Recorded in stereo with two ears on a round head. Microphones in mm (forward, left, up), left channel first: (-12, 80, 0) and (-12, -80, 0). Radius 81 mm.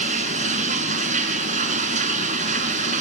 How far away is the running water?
About 1.9 m.